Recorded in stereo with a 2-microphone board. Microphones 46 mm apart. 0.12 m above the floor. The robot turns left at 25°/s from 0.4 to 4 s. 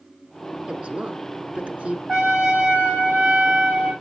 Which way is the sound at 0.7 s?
25° right (ahead or behind).